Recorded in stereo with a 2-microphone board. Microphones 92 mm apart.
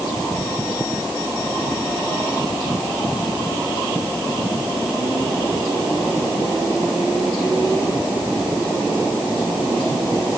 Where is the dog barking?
I don't hear a dog barking.